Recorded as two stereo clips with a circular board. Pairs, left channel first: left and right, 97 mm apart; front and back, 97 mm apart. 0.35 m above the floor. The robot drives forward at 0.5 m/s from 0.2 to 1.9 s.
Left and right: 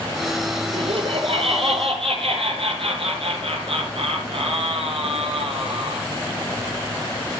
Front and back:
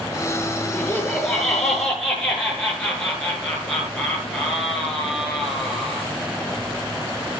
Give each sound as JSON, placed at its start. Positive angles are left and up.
{"t": 0.7, "sound": "laughter", "azimuth_deg": -80, "distance_m": 5.5}